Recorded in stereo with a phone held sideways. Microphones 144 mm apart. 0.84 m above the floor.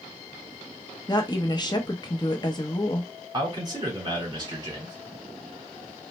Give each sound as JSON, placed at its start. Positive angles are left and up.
{"t": 1.1, "sound": "a woman speaking", "side_deg": 30, "distance_m": 0.7}
{"t": 3.3, "sound": "a man speaking", "side_deg": -30, "distance_m": 1.9}